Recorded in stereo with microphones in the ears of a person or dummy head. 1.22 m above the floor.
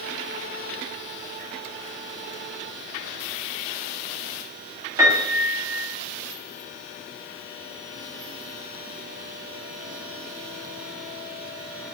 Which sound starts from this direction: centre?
A piano, at 5.0 s.